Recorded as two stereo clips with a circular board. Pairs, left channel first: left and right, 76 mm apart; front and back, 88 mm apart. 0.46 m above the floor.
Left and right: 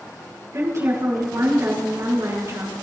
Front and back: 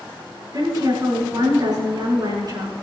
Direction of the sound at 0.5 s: 140° right.